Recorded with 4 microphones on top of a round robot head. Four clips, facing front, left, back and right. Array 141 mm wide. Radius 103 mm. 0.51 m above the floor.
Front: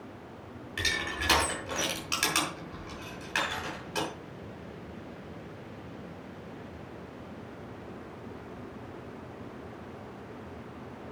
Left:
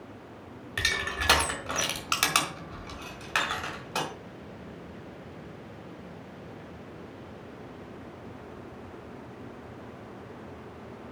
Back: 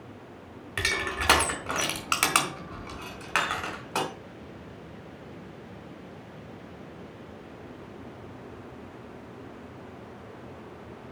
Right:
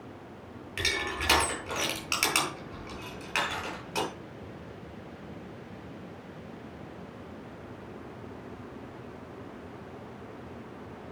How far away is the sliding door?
I don't hear a sliding door.